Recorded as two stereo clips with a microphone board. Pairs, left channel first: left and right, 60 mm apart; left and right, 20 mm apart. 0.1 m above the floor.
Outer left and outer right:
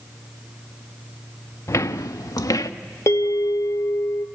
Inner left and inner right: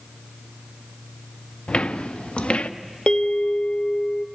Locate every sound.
1.7 s footsteps: 55° left (ahead or behind), 0.6 m; by 2.7 s 80° left, 1.0 m
3.1 s a bell: 60° left (ahead or behind), 0.8 m